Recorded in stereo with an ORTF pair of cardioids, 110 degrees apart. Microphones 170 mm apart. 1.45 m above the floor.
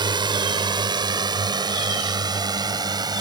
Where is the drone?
25° right.